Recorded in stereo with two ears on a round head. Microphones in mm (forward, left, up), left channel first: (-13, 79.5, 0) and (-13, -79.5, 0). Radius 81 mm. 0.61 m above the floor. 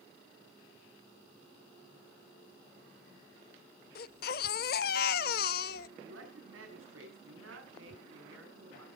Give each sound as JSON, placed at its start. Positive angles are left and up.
{"t": 4.0, "sound": "a baby crying", "side_deg": 50, "distance_m": 0.6}
{"t": 6.0, "sound": "a man speaking", "side_deg": -80, "distance_m": 6.5}